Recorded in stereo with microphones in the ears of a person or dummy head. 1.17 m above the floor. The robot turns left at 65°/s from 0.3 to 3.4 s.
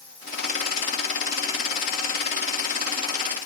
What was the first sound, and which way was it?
Only background noise.